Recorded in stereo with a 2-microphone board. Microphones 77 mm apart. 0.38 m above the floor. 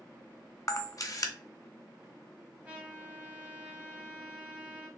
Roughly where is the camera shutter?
Left.